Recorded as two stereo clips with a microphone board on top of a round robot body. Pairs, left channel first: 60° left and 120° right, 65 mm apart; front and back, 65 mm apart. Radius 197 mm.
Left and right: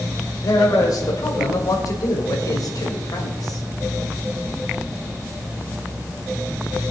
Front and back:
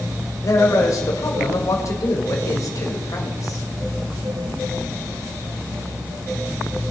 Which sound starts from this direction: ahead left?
A man speaking, at 0.4 s.